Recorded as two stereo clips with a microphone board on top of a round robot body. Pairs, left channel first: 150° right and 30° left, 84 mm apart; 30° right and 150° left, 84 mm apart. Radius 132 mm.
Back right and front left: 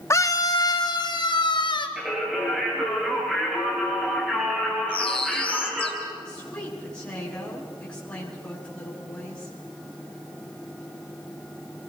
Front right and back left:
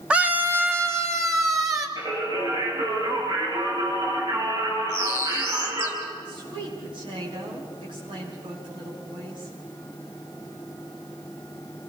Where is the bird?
150° right, 3.5 m.